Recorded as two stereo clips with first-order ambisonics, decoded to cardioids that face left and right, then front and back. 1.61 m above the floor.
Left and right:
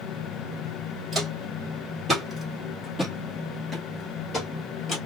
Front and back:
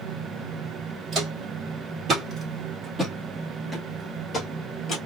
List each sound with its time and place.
1.1 s footsteps: 150° right, 2.0 m; by 5.0 s 45° left, 1.7 m